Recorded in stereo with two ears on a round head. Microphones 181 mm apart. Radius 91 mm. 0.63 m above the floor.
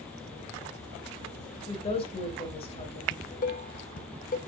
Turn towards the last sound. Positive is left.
turn(degrees=45)  # may be behind; listen again after turning